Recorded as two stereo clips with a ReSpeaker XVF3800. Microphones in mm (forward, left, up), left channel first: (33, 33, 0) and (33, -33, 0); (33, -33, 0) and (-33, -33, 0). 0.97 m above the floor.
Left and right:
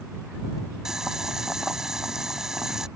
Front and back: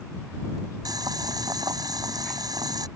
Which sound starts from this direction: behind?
Boiling, at 0.8 s.